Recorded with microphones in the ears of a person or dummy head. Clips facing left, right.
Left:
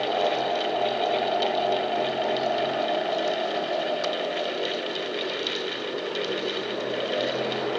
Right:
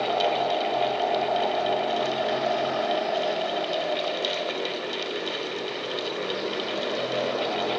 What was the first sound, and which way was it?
Only background noise.